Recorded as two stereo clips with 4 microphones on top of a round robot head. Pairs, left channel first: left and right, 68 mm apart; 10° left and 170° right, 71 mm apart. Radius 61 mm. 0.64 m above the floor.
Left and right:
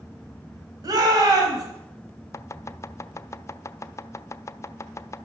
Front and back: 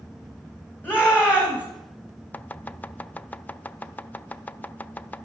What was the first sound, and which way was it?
A shout, 65° right.